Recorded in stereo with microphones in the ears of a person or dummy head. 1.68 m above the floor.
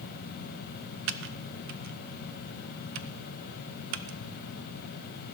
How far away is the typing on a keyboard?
About 0.5 m.